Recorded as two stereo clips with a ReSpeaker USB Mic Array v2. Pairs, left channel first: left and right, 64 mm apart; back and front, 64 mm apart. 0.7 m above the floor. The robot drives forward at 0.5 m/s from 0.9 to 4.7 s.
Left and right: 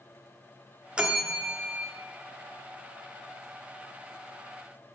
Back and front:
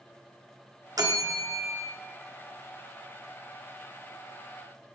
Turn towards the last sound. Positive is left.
turn(degrees=-165)